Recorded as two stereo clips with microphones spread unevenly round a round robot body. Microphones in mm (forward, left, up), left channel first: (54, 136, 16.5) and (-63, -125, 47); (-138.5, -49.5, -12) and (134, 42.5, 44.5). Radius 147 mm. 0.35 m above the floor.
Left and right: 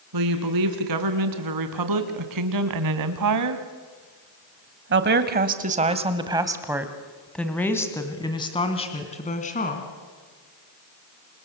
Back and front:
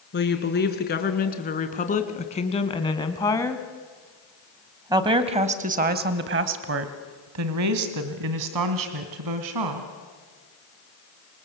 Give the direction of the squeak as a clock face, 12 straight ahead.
I don't hear a squeak.